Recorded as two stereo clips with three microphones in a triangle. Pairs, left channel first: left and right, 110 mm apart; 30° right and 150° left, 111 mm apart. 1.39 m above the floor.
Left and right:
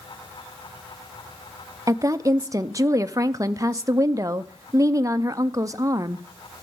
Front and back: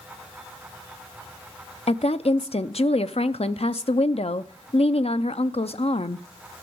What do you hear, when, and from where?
1.9 s a woman speaking: 35° right, 0.6 m